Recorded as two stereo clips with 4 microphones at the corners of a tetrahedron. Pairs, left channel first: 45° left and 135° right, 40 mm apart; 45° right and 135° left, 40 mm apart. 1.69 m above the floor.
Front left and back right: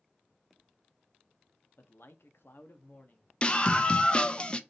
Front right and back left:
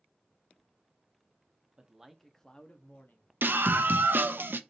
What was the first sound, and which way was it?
A man speaking, 70° left.